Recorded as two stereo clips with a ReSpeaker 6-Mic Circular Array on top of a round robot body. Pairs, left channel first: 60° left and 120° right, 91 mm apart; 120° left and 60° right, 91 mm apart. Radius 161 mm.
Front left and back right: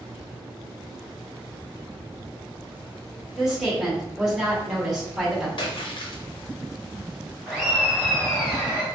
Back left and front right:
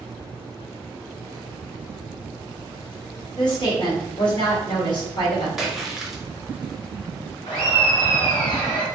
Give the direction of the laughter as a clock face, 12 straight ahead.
7 o'clock.